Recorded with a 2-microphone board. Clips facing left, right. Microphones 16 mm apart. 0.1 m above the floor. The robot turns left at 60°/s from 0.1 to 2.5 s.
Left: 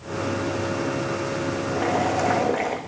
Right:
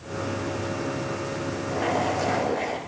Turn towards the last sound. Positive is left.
turn(degrees=130)